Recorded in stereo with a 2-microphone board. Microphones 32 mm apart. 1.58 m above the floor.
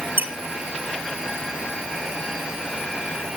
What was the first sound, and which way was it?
A squeak, 75° right (ahead or behind).